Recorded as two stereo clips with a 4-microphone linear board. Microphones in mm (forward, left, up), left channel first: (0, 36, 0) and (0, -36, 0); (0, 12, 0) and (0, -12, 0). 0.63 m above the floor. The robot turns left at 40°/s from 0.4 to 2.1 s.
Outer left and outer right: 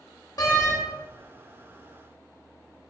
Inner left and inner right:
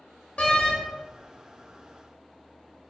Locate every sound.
0.4 s a door slam: 55° left (ahead or behind), 0.9 m; by 0.8 s 40° left (ahead or behind), 0.9 m